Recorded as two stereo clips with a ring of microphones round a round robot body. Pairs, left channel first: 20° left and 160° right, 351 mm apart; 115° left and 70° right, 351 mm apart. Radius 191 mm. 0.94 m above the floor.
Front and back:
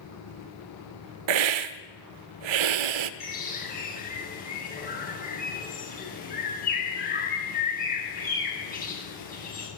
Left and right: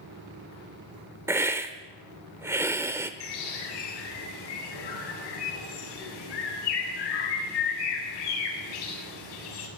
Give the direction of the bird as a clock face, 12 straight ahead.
9 o'clock.